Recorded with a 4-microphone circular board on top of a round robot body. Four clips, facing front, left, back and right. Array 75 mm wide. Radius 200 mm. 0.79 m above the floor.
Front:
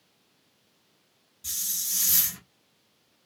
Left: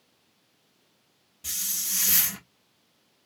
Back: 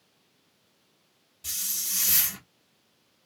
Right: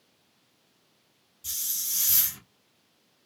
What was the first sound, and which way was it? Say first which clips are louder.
A hiss: left 5 dB, back 2 dB; 110° left.